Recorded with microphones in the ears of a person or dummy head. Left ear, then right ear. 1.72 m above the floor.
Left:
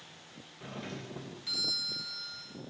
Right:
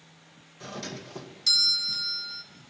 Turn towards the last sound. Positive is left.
turn(degrees=-90)